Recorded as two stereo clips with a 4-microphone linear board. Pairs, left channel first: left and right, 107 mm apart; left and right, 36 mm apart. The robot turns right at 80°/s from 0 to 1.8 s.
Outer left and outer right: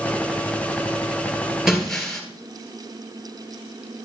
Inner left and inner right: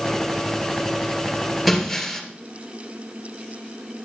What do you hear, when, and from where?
1.7 s breaking glass: 5° right (ahead or behind), 2 m; by 2.2 s 5° left (ahead or behind), 2 m